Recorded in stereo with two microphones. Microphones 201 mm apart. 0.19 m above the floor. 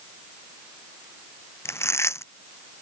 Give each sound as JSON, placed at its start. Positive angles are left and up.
{"t": 1.6, "sound": "chewing", "side_deg": 15}